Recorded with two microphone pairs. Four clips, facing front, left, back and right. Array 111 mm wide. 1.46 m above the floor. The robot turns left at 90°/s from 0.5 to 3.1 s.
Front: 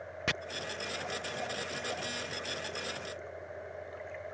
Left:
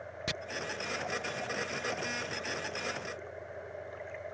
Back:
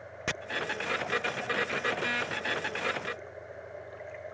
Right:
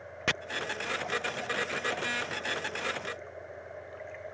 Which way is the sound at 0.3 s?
95° right.